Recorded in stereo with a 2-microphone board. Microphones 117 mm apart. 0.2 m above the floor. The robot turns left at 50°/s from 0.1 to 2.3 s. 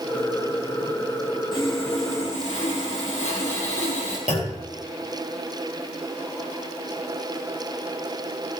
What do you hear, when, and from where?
1.5 s sawing: 140° left, 4 m; by 4.2 s 100° left, 4 m
4.3 s a clunk: 75° left (ahead or behind), 5.5 m